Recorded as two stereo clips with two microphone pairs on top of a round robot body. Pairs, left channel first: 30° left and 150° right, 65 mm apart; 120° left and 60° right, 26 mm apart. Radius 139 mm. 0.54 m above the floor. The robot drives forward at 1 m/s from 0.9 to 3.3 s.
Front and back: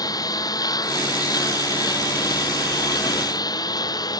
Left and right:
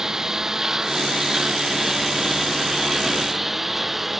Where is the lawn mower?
15° left; by 4.2 s 20° left.